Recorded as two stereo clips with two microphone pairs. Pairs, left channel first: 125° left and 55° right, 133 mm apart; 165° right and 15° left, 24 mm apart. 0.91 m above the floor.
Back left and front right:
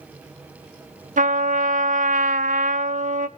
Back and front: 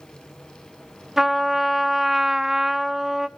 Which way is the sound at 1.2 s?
65° right.